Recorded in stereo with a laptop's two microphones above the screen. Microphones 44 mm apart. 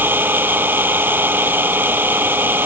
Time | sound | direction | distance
0.0 | an engine running | 50° right (ahead or behind) | ?